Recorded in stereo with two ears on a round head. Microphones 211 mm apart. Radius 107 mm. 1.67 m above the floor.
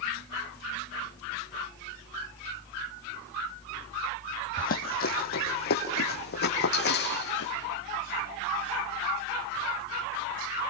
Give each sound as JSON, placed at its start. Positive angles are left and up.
{"t": 4.6, "sound": "running footsteps", "side_deg": 40, "distance_m": 3.5}